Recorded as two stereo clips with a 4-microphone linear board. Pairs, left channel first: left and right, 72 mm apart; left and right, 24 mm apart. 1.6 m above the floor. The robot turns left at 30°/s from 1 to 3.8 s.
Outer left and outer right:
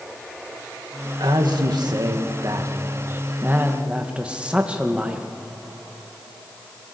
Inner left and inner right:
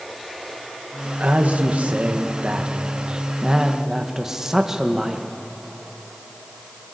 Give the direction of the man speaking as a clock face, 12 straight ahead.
3 o'clock.